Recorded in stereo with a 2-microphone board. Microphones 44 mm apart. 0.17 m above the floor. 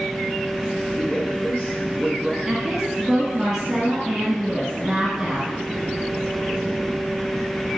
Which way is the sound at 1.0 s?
25° left (ahead or behind).